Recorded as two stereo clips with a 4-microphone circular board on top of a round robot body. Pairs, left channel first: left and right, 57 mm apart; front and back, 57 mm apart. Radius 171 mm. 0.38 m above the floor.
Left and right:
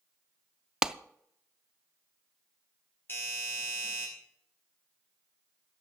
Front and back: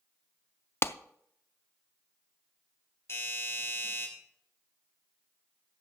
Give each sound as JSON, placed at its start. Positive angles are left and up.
{"t": 0.8, "sound": "a clap", "azimuth_deg": -20, "distance_m": 0.7}
{"t": 3.1, "sound": "a doorbell", "azimuth_deg": 40, "distance_m": 5.0}